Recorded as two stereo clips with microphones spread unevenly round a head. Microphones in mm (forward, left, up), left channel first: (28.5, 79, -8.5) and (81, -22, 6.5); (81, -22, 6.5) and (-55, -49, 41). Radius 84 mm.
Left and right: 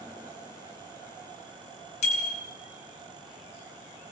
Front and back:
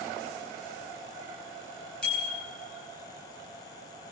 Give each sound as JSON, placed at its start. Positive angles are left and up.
{"t": 2.0, "sound": "a bicycle bell", "azimuth_deg": 95, "distance_m": 4.0}